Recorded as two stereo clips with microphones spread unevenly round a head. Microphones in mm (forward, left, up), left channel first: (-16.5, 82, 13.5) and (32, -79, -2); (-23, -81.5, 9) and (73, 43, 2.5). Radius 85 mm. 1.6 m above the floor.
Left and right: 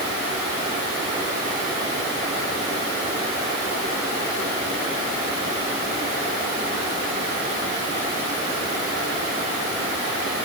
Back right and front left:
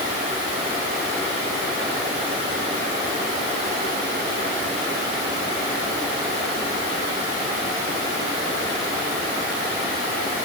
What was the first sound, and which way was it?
Only background noise.